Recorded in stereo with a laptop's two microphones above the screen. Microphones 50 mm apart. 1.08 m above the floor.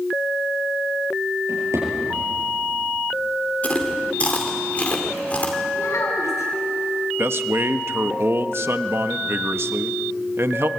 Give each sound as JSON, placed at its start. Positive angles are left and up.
{"t": 1.5, "sound": "a drawer", "side_deg": -75, "distance_m": 9.5}
{"t": 3.6, "sound": "chewing", "side_deg": 30, "distance_m": 3.0}
{"t": 5.7, "sound": "a child speaking", "side_deg": 75, "distance_m": 8.0}
{"t": 7.2, "sound": "a man speaking", "side_deg": -55, "distance_m": 0.9}